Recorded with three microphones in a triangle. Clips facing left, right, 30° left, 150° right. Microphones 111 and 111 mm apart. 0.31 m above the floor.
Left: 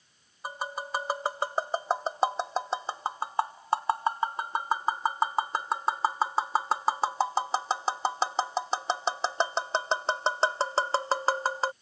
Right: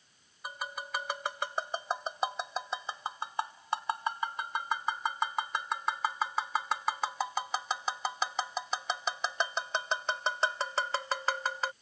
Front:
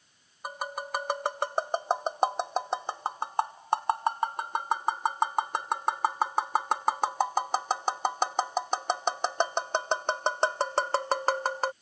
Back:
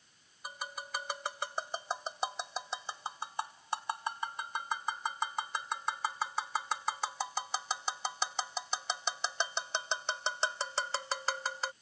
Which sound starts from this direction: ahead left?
Tapping, at 0.4 s.